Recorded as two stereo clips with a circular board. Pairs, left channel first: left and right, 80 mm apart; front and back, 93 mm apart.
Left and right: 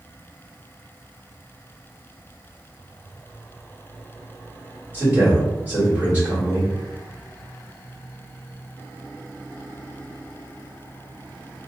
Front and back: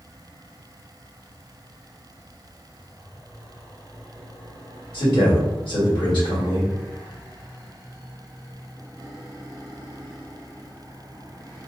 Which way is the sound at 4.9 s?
25° right.